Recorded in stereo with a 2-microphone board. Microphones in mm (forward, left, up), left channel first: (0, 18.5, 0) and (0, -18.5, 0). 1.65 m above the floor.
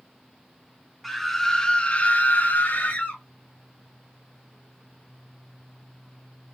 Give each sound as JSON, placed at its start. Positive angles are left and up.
{"t": 1.0, "sound": "a scream", "side_deg": 0, "distance_m": 1.2}